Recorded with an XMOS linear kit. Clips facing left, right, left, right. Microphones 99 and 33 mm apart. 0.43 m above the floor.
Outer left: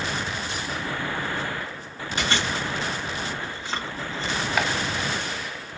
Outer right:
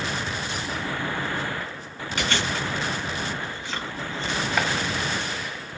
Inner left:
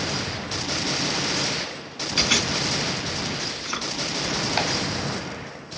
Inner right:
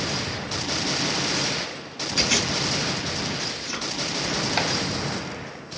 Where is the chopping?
Centre (ahead or behind), 1.0 m.